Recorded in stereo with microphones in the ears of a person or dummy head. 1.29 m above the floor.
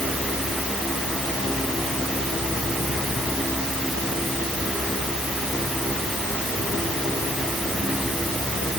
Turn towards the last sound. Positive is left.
No sound to turn to.